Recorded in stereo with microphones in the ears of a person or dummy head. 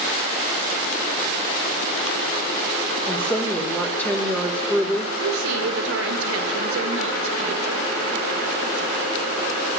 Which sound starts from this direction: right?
A woman speaking, at 5.2 s.